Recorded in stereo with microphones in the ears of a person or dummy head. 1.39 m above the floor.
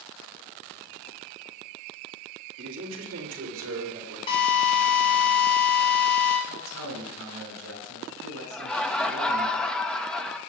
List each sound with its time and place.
2.6 s a man speaking: 60° right (ahead or behind), 2.5 m; by 4.2 s 75° right (ahead or behind), 5 m
4.3 s a drill: 35° left (ahead or behind), 4 m
6.5 s a man speaking: 90° right, 7 m
8.5 s laughter: 10° left (ahead or behind), 1.7 m